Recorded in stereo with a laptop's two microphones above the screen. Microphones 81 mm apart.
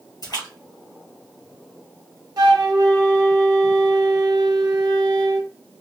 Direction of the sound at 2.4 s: 50° right (ahead or behind).